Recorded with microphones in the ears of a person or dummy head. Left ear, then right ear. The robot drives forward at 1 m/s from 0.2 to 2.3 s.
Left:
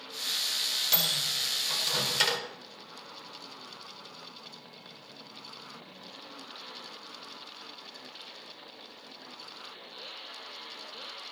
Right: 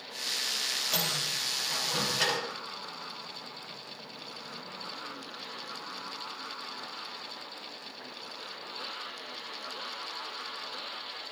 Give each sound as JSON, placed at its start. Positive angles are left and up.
{"t": 0.9, "sound": "a microwave", "side_deg": 45, "distance_m": 5.5}